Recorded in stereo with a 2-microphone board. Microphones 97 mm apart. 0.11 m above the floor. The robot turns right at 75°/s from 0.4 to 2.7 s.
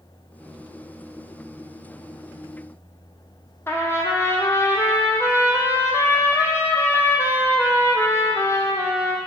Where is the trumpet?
25° left (ahead or behind), 1.5 m.